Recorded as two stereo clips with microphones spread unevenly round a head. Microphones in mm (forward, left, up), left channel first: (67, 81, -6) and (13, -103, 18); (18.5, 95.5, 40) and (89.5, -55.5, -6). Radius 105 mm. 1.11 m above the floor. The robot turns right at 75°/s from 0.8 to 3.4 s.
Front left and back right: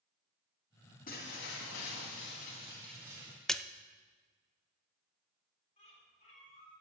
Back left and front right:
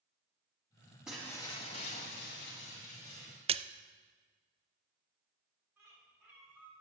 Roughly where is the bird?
Ahead.